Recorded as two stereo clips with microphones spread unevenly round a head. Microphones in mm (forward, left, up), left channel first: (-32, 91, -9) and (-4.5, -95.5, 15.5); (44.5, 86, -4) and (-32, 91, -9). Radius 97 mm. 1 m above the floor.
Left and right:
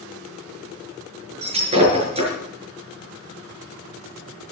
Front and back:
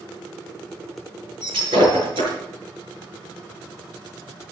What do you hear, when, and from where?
1.4 s breaking glass: 140° right, 7 m